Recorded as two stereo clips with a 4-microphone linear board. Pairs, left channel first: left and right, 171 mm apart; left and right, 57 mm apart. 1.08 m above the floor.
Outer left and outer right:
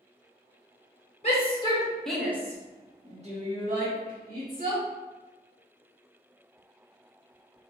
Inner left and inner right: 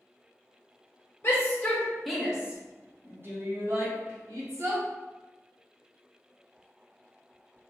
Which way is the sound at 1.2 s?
40° left (ahead or behind).